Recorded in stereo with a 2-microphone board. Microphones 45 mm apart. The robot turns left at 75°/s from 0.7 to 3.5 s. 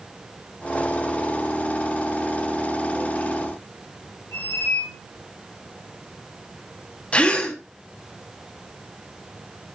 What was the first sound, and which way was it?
A squeak, 80° left.